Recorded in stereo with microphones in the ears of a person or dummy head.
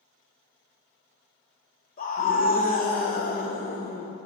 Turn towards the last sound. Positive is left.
turn(degrees=45)  # may be behind; listen again after turning